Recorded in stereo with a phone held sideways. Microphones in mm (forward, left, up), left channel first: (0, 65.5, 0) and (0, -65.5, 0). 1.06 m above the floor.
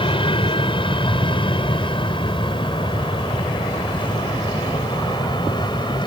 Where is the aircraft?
40° left (ahead or behind); by 6.1 s 35° left (ahead or behind).